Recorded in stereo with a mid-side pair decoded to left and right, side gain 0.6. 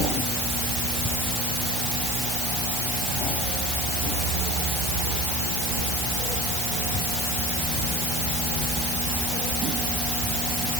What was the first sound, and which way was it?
Only background noise.